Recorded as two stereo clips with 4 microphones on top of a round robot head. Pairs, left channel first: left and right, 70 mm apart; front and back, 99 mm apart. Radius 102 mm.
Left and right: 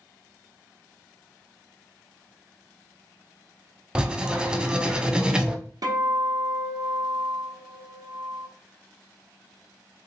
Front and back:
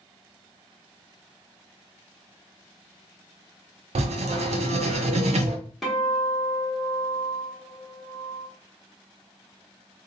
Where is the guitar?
90° right, 1.1 m.